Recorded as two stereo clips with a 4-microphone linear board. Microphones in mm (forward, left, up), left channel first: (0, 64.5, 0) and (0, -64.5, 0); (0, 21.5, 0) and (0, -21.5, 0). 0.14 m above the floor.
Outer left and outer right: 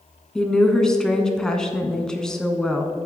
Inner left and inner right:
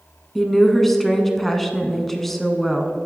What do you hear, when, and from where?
0.3 s a woman speaking: 5° left (ahead or behind), 1.0 m